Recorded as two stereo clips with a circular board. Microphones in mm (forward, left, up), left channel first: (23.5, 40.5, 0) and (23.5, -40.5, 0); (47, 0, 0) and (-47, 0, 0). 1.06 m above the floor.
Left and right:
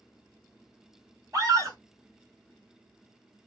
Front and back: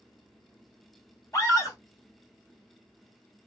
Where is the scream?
50° right, 1.4 m.